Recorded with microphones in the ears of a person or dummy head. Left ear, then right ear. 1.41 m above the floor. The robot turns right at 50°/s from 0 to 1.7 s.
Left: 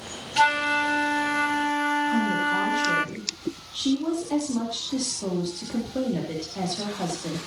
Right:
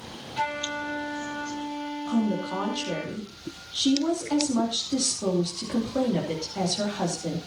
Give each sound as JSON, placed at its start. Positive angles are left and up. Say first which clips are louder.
{"t": 0.4, "sound": "a flute", "louder": "left 9 dB", "azimuth_deg": 50, "distance_m": 0.8}
{"t": 2.0, "sound": "a woman speaking", "louder": "left 5 dB", "side_deg": -10, "distance_m": 3.0}